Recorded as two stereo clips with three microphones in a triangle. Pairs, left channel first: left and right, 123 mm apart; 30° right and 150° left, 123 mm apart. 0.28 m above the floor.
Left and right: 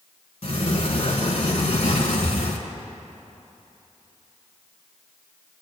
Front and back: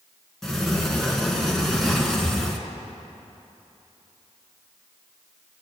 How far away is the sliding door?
About 1.2 m.